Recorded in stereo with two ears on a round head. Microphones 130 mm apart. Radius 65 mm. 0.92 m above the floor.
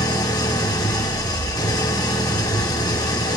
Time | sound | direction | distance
0.0 | an engine running | 25° left (ahead or behind) | 1.3 m